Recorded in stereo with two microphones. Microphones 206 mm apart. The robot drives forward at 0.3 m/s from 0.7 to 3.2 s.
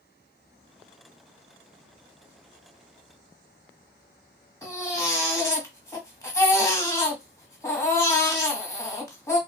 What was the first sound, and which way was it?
A baby crying, 15° left (ahead or behind).